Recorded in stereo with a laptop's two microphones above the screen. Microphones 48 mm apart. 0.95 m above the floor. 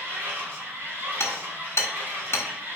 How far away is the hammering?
About 1.5 m.